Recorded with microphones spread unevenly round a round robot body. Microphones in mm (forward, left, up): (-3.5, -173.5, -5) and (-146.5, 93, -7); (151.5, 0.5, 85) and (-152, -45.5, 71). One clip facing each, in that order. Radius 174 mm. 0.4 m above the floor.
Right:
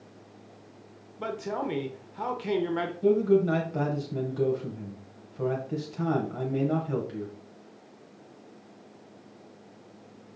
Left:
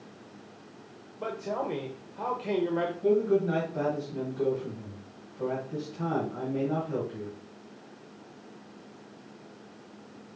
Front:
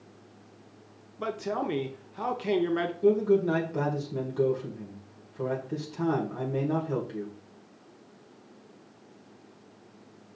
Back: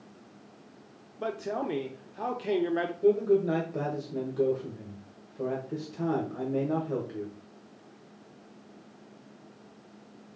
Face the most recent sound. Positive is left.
turn(degrees=-70)